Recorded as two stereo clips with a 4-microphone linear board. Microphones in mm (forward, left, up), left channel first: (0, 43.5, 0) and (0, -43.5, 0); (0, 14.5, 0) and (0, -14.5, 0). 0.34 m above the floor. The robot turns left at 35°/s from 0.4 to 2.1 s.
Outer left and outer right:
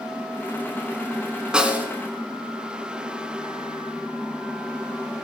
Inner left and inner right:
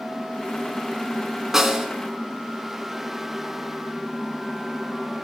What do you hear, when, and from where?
1.5 s a snare drum: 10° right (ahead or behind), 2.5 m; by 1.9 s 25° right (ahead or behind), 2.5 m